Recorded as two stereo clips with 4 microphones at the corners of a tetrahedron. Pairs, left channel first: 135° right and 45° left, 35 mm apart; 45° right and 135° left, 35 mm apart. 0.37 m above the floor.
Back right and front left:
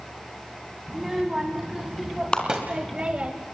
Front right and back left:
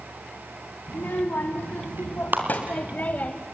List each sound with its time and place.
0.9 s a child speaking: 40° right, 2.5 m; by 3.3 s 5° right, 1.5 m
2.3 s a clap: 160° left, 4 m